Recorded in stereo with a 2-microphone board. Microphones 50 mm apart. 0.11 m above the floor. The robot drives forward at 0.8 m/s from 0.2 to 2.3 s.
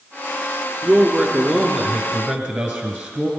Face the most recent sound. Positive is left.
turn(degrees=-15)  # may be behind; listen again after turning